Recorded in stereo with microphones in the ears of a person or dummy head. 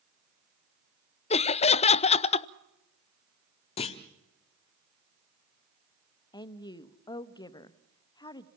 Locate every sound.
1.3 s laughter: 35° left (ahead or behind), 0.5 m
3.8 s a clunk: 40° left (ahead or behind), 0.9 m
6.3 s a woman speaking: 25° left (ahead or behind), 0.8 m